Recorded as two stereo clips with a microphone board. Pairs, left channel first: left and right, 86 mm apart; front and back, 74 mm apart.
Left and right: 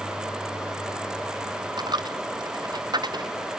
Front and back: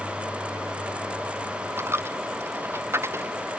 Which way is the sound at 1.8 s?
125° right.